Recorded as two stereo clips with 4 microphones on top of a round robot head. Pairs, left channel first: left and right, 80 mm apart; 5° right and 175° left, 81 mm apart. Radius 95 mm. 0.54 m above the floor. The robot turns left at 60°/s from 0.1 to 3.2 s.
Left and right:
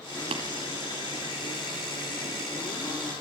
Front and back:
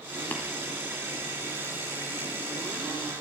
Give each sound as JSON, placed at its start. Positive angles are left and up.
{"t": 0.3, "sound": "tapping", "azimuth_deg": -80, "distance_m": 1.7}